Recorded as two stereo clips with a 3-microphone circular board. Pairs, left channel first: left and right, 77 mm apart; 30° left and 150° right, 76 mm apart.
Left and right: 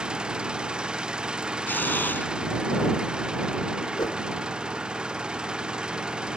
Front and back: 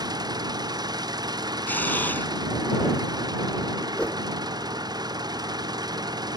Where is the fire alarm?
No fire alarm in this recording.